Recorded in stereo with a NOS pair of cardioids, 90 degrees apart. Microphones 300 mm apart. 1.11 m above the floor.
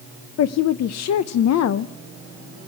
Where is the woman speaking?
60° left, 0.6 m.